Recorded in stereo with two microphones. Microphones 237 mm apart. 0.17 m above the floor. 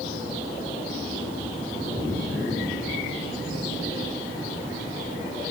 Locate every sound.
Only background noise.